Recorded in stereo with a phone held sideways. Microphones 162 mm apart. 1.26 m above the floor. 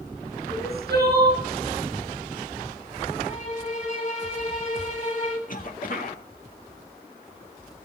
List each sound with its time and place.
0.5 s crying: 80° right, 5 m
3.3 s a violin: 45° left (ahead or behind), 3 m
5.5 s a cough: 60° left (ahead or behind), 1.8 m